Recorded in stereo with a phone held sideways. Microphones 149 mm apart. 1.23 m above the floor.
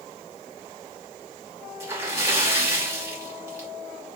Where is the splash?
20° right (ahead or behind), 2.5 m.